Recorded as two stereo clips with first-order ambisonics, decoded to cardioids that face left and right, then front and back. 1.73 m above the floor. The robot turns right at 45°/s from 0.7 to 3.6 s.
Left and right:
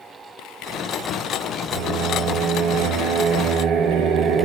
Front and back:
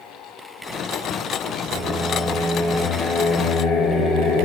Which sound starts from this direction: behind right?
Singing, at 1.7 s.